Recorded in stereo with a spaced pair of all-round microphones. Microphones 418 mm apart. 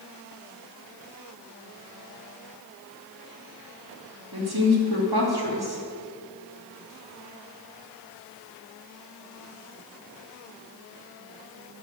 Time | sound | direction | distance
4.3 | a woman speaking | 60° right (ahead or behind) | 2.5 m